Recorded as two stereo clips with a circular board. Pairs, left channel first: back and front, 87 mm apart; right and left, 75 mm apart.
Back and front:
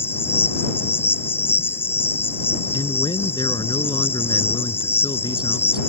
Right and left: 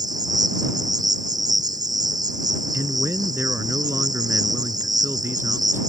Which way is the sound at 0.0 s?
115° left.